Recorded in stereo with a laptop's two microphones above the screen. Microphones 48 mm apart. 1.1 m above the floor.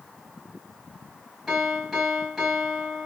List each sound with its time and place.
1.5 s a piano: 5° right (ahead or behind), 4.5 m